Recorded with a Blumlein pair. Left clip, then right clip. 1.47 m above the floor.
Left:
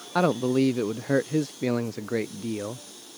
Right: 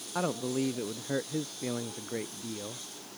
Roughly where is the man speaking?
Ahead left.